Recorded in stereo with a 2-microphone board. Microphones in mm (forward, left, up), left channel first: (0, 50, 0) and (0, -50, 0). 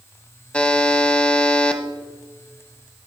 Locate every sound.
0.5 s a buzzer: 10° left (ahead or behind), 0.8 m